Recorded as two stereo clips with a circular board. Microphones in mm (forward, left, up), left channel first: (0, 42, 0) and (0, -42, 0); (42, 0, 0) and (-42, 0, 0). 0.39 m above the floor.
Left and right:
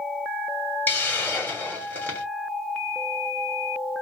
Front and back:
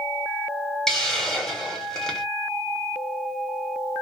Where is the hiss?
75° left, 1.2 m.